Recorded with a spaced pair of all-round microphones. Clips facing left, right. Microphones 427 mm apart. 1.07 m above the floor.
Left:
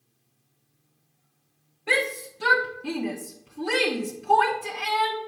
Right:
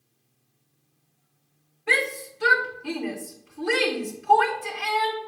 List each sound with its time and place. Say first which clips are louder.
1.9 s a shout: left 1 dB; 50° left (ahead or behind), 1.1 m